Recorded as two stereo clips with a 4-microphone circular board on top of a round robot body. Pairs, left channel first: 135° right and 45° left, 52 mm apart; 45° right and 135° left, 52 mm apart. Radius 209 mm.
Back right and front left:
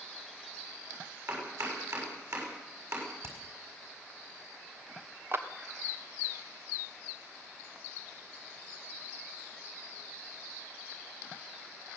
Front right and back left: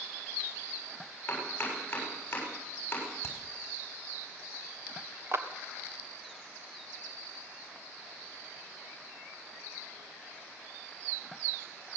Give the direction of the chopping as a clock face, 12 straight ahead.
11 o'clock.